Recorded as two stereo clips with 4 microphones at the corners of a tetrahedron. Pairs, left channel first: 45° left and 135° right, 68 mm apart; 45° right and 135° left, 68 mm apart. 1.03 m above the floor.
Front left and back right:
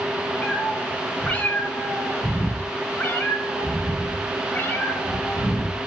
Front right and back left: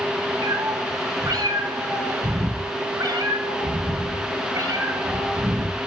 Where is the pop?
I don't hear a pop.